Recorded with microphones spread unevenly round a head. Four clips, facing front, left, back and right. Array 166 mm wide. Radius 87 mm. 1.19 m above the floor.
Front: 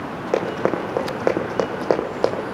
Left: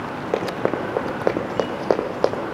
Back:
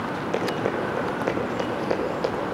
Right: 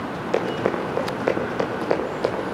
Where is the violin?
I don't hear a violin.